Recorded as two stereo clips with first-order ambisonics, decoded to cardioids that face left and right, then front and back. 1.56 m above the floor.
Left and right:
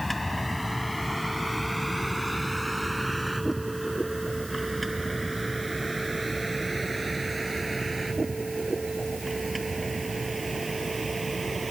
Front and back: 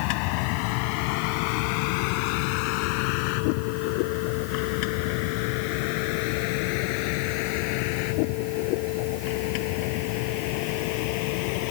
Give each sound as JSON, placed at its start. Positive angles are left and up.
{"t": 0.0, "sound": "a vehicle", "azimuth_deg": 10}